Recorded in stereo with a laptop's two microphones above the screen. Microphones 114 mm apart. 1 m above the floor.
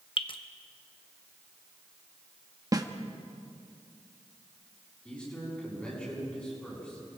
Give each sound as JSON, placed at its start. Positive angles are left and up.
{"t": 0.2, "sound": "dripping", "side_deg": 45, "distance_m": 1.1}
{"t": 2.7, "sound": "a snare drum", "side_deg": -30, "distance_m": 1.5}
{"t": 5.0, "sound": "a man speaking", "side_deg": 10, "distance_m": 7.5}